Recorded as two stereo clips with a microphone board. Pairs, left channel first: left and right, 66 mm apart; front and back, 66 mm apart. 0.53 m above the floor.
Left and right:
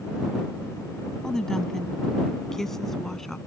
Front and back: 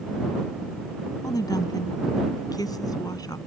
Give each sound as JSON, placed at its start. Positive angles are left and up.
{"t": 1.2, "sound": "a woman speaking", "azimuth_deg": 10}